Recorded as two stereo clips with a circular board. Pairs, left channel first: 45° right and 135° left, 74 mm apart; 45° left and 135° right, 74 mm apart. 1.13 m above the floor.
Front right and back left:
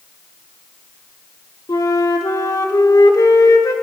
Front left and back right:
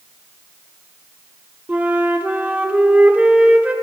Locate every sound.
1.7 s a flute: 65° right, 1.1 m